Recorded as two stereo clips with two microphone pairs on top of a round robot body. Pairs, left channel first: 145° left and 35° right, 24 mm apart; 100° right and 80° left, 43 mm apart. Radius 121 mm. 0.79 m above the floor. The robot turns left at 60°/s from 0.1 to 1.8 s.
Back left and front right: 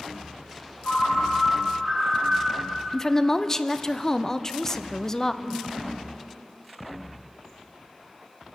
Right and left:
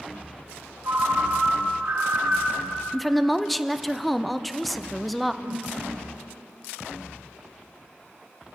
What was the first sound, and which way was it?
A ringtone, 95° left.